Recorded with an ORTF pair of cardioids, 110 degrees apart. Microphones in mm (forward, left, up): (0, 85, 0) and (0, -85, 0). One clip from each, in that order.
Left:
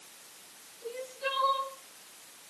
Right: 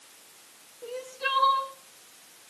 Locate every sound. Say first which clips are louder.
0.8 s crying: right 4 dB; 55° right, 5.5 m